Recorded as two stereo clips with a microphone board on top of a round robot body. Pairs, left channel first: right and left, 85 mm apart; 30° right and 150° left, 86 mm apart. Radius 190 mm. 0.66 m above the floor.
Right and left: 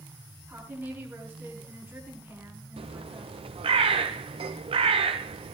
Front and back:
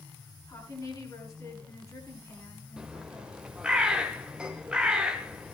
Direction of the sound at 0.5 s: 25° left.